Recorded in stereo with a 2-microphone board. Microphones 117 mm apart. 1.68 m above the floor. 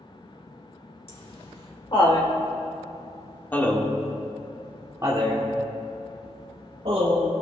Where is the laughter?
55° left (ahead or behind), 2.5 m; by 7.3 s 60° right (ahead or behind), 2.5 m.